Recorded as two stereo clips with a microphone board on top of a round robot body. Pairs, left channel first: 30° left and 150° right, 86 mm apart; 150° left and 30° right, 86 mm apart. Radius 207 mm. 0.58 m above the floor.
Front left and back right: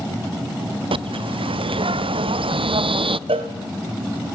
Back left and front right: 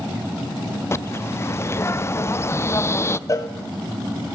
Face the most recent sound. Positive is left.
turn(degrees=-155)